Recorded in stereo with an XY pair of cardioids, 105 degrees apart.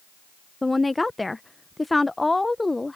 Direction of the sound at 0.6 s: 15° left.